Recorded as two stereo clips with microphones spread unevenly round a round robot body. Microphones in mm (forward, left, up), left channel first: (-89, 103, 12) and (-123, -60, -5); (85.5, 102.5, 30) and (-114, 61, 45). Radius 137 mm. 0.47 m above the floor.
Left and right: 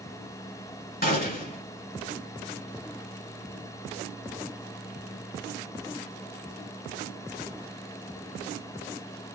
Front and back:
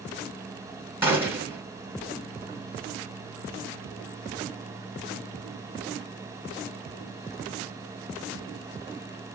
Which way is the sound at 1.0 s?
110° left.